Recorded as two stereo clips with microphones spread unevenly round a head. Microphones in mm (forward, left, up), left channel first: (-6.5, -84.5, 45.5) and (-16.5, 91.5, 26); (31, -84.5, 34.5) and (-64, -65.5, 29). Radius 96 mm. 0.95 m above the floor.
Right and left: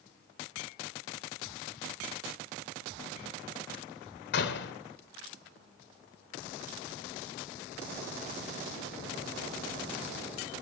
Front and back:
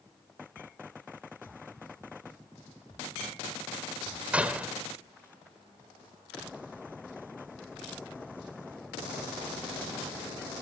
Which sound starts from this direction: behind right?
A door slam, at 4.3 s.